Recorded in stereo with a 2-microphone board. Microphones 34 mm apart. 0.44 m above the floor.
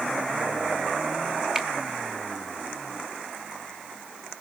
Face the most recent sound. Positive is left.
turn(degrees=-15)  # may be behind; listen again after turning